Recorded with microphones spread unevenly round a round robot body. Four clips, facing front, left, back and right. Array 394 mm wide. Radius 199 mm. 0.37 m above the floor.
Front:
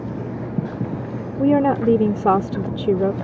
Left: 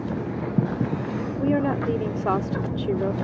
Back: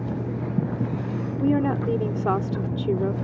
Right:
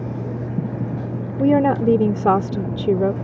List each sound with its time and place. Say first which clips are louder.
1.4 s a woman speaking: right 8 dB, front 6 dB; 65° right